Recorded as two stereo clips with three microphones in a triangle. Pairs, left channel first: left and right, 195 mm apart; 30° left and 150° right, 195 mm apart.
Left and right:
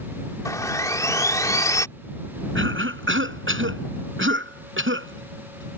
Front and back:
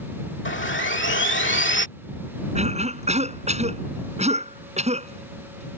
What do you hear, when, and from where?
0.5 s sawing: 15° left
2.5 s a cough: 95° right